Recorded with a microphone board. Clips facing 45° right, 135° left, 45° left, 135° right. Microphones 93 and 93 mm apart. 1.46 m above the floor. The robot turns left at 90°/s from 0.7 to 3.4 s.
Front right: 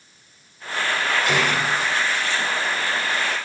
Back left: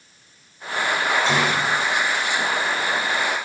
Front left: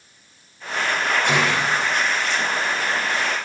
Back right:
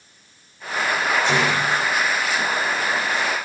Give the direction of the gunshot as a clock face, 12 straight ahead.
10 o'clock.